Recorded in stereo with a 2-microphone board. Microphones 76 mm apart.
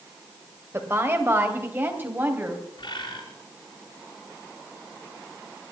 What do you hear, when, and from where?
0.7 s a woman speaking: 30° right (ahead or behind), 2.5 m; by 2.6 s 25° right (ahead or behind), 3.5 m
2.8 s a bird: 80° left, 4.5 m